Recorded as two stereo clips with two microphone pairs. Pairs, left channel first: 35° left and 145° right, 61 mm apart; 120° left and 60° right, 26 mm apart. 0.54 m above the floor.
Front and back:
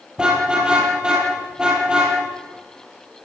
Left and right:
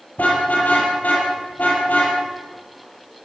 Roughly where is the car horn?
Behind left.